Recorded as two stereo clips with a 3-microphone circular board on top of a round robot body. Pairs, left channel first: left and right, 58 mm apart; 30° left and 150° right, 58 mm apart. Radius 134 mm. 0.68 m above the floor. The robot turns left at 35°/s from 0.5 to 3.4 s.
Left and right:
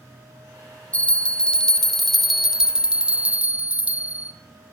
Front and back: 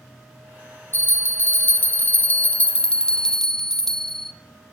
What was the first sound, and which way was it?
A bell, 45° left.